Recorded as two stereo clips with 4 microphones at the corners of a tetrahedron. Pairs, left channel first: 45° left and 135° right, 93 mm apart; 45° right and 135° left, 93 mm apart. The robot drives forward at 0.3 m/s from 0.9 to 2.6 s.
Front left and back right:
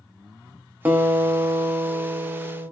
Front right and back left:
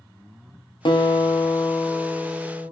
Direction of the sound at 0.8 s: 65° right.